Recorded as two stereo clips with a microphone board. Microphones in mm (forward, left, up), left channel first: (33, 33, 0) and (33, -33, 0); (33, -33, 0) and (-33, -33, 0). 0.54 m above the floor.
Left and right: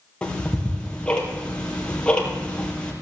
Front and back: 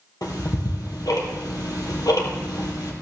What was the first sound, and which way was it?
Ticking, 15° left.